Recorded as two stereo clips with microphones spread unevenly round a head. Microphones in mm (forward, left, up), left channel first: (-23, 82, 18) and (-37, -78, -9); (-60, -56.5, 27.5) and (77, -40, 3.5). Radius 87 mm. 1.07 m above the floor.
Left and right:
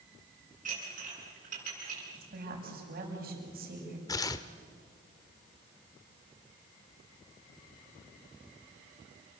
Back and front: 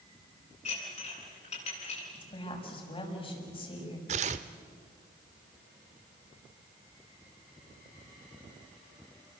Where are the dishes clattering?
135° right, 9 m.